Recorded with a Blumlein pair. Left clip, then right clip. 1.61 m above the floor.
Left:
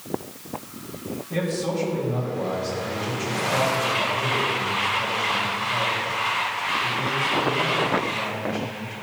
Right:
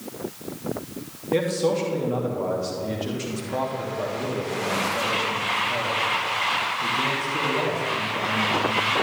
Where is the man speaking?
70° right, 2.5 m.